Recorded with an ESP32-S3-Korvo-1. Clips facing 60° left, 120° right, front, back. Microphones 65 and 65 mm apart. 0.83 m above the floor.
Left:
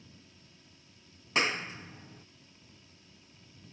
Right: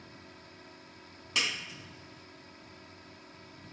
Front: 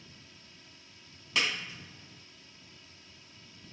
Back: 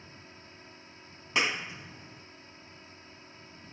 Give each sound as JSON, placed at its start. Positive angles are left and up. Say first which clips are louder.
{"t": 0.0, "sound": "a drone", "louder": "right 7 dB, back 5 dB", "azimuth_deg": -130}
{"t": 1.4, "sound": "a clap", "louder": "left 4 dB, back 2 dB", "azimuth_deg": 115}